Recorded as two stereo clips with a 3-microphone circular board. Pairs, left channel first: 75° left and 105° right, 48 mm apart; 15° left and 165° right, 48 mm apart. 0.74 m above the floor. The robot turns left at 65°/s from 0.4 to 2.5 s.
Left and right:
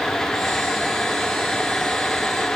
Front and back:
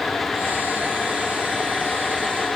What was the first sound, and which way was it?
Only background noise.